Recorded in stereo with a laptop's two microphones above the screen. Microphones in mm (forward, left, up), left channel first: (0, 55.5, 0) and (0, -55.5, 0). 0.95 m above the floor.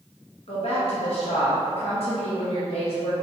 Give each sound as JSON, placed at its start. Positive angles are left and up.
{"t": 0.5, "sound": "a woman speaking", "side_deg": 60, "distance_m": 0.6}